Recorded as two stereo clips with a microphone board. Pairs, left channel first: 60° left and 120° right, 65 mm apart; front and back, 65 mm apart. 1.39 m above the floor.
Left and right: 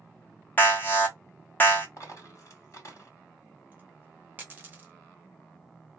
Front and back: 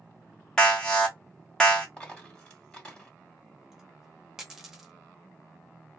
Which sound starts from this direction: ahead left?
An alarm, at 0.6 s.